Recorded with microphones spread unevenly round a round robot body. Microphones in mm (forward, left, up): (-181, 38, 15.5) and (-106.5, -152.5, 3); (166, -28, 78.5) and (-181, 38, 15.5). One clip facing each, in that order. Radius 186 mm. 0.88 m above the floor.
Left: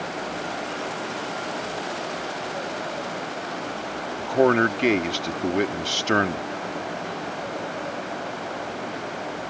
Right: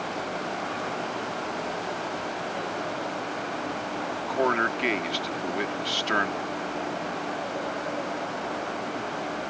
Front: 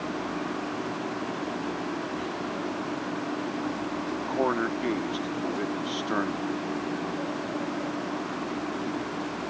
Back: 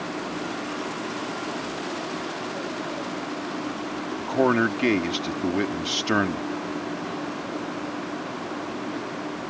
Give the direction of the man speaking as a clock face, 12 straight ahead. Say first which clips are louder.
Left 8 dB, back 7 dB; 7 o'clock.